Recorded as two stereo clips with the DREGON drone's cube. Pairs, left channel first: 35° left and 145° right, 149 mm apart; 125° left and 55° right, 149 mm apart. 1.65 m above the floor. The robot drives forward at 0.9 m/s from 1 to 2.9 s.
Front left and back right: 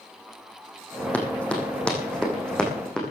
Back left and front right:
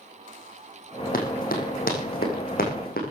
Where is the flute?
I don't hear a flute.